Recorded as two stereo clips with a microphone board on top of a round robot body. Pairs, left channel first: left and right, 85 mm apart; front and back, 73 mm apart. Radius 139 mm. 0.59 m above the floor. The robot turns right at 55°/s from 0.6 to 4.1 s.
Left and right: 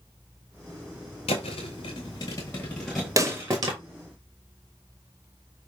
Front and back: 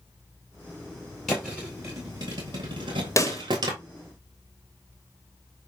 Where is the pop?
45° right, 1.0 m; by 3.4 s 30° right, 1.0 m.